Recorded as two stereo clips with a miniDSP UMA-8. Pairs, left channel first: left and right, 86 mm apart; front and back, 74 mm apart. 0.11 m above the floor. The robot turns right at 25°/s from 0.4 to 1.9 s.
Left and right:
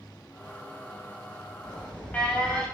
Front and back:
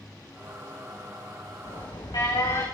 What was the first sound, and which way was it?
An alarm, 10° left.